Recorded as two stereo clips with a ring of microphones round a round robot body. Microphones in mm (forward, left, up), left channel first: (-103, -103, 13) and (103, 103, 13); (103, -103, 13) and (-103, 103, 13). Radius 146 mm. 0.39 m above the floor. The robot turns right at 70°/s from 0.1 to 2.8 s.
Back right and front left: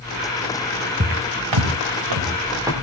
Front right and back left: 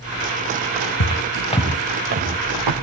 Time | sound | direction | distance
1.0 | footsteps | 20° right | 2.0 m